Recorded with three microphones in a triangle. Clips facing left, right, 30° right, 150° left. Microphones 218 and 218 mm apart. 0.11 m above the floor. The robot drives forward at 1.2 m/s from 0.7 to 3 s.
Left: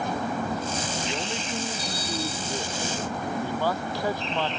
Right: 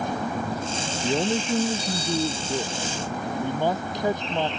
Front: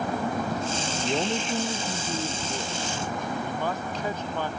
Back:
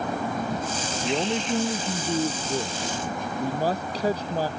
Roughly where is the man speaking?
Behind right.